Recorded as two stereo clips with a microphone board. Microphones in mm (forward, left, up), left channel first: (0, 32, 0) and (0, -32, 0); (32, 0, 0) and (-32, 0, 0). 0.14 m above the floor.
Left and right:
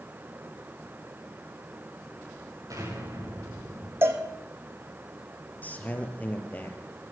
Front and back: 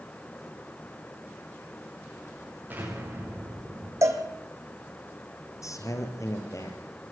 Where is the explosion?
120° right, 8.5 m.